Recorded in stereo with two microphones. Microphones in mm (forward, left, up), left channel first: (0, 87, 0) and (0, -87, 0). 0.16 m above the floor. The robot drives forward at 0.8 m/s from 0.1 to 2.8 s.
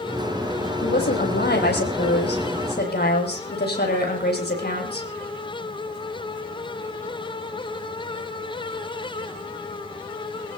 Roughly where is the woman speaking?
Left.